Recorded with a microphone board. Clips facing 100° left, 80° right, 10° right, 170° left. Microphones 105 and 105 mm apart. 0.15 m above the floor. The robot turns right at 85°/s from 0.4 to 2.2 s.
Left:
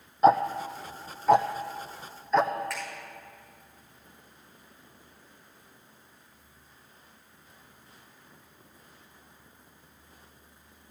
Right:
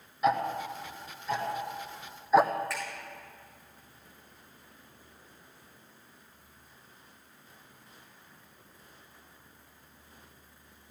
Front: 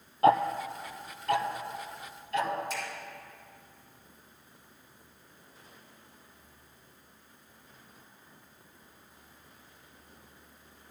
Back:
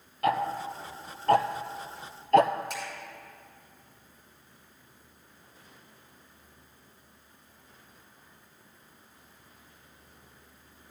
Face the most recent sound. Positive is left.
turn(degrees=-165)